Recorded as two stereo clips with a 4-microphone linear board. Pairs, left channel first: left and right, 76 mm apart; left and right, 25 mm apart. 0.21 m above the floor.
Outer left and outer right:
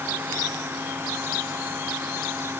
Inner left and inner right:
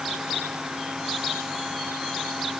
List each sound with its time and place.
Only background noise.